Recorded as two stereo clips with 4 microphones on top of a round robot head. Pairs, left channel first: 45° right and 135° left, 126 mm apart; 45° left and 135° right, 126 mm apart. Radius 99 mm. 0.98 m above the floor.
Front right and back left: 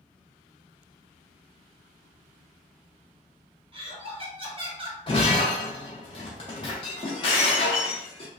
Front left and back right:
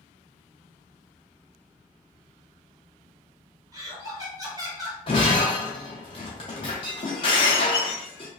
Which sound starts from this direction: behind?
Laughter, at 3.7 s.